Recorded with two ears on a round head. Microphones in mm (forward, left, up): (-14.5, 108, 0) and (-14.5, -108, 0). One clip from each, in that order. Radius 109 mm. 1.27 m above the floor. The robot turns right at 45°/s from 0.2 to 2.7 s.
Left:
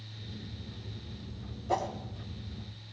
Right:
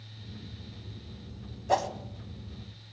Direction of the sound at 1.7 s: 30° right (ahead or behind).